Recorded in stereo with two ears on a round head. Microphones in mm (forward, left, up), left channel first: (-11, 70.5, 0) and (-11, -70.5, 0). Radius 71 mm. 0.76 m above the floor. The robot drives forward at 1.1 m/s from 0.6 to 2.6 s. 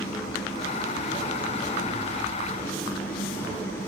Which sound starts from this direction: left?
An engine running, at 0.0 s.